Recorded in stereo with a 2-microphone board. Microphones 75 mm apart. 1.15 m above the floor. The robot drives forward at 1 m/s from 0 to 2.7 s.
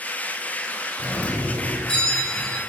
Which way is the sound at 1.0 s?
25° left (ahead or behind).